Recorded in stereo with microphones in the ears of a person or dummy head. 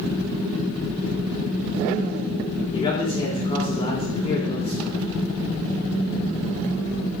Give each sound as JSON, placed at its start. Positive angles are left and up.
{"t": 2.7, "sound": "a man speaking", "side_deg": 30, "distance_m": 3.5}